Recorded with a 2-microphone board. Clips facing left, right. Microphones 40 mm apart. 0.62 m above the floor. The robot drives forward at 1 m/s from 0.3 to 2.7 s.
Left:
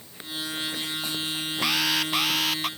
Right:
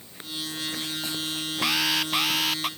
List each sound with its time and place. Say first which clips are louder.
1.6 s an alarm: even; centre (ahead or behind)